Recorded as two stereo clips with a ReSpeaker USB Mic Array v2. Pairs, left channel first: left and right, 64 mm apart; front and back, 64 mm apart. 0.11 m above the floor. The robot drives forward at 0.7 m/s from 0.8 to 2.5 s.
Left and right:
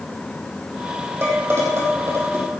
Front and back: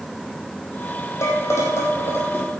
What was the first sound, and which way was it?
Dishes clattering, 40° right.